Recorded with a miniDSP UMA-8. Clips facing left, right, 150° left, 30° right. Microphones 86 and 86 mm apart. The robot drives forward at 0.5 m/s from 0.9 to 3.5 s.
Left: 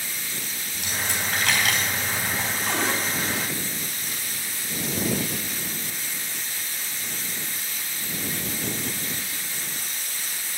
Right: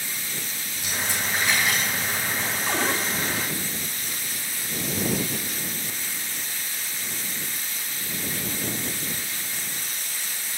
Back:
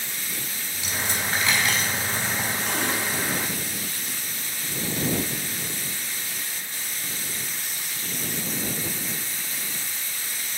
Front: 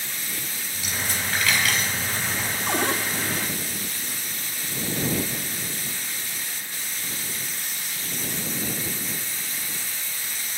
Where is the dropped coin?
80° left, 6 m; by 2.6 s 90° left, 6 m.